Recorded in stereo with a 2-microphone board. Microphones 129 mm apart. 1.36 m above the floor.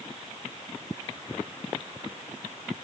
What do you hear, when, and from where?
Only background noise.